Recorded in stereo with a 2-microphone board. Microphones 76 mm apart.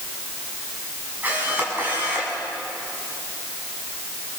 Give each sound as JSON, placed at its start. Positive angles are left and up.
{"t": 1.2, "sound": "a camera shutter", "side_deg": -25, "distance_m": 7.0}